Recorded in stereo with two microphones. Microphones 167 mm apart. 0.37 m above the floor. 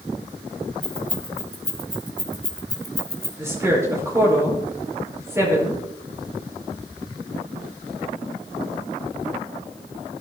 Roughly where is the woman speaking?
Centre.